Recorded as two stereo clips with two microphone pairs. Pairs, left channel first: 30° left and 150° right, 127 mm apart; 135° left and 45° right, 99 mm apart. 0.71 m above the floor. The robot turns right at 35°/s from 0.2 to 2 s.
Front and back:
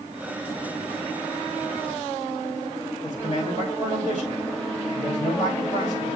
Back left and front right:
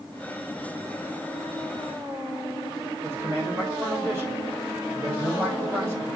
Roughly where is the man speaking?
Ahead.